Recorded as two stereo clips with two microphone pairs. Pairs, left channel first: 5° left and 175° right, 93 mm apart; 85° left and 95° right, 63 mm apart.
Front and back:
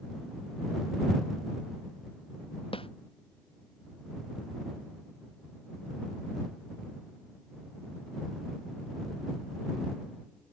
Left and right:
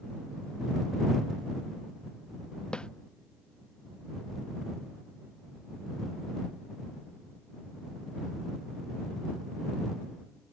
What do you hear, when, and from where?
2.7 s a snare drum: 10° left